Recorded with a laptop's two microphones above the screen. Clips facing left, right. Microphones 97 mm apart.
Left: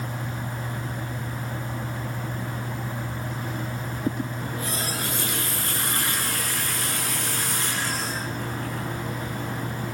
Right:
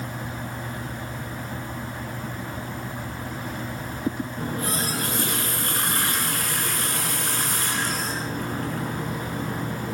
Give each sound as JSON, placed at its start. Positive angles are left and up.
{"t": 4.4, "sound": "a running tap", "side_deg": -45, "distance_m": 7.0}